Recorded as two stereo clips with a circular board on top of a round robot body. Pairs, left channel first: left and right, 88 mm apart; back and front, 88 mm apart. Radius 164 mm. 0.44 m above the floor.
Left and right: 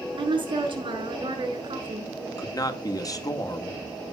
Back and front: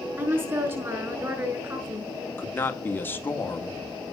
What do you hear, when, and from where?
0.2 s a woman speaking: 60° right, 6 m
2.4 s a man speaking: 120° left, 1.9 m